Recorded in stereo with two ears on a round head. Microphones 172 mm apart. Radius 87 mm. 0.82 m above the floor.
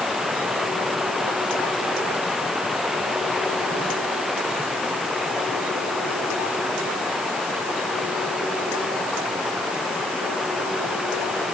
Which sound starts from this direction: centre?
Running water, at 0.0 s.